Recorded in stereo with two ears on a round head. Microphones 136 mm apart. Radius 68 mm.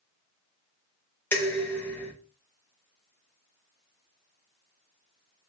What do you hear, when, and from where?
1.3 s dishes clattering: 15° left (ahead or behind), 0.7 m